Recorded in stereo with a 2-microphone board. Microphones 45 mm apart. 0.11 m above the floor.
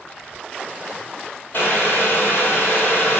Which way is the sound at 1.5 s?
50° left (ahead or behind).